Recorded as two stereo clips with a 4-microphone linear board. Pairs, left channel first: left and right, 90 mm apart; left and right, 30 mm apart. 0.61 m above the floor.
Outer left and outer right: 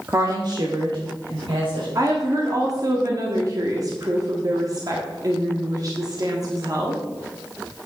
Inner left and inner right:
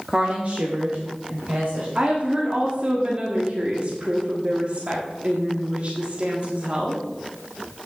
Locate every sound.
0.1 s a woman speaking: 30° right (ahead or behind), 0.9 m; by 1.9 s 75° right (ahead or behind), 3 m
1.9 s a woman speaking: 45° right (ahead or behind), 1.4 m